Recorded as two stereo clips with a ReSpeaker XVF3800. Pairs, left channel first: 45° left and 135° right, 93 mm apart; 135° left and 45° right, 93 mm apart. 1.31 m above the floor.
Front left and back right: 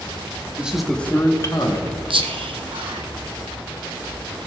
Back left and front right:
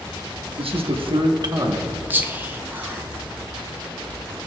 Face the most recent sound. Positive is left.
turn(degrees=-115)